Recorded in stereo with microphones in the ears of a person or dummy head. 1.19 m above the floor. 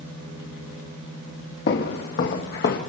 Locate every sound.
1.7 s footsteps: 55° left (ahead or behind), 3.5 m; by 2.8 s 50° left (ahead or behind), 2.5 m